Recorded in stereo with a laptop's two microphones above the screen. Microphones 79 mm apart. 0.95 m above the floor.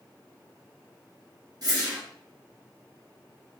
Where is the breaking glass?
I don't hear breaking glass.